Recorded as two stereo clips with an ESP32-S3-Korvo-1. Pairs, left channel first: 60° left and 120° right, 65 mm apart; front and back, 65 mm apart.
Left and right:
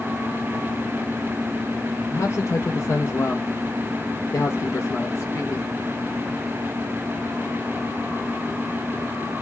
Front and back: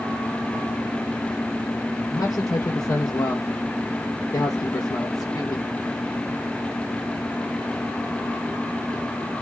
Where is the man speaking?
15° left, 0.6 m.